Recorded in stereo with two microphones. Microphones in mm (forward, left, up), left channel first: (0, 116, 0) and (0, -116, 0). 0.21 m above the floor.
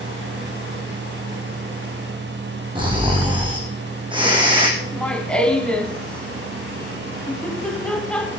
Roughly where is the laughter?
Centre.